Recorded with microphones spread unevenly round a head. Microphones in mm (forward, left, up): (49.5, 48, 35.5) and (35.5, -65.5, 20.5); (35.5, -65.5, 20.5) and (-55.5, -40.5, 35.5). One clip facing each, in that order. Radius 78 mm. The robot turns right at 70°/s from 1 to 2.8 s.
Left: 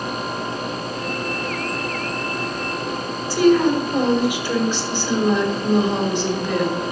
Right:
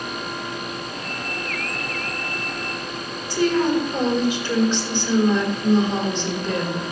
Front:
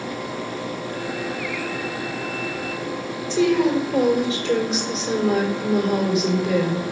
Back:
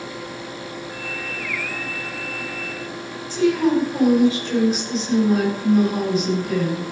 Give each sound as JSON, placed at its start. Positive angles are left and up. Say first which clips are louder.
{"t": 3.3, "sound": "a woman speaking", "louder": "left 4 dB, even", "azimuth_deg": 5, "distance_m": 5.0}